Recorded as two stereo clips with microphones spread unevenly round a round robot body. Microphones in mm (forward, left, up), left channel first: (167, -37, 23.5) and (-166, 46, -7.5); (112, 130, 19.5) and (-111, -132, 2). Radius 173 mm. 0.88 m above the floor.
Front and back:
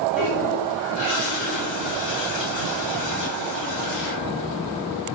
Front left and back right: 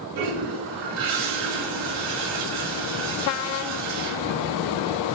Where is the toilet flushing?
105° right, 3.5 m.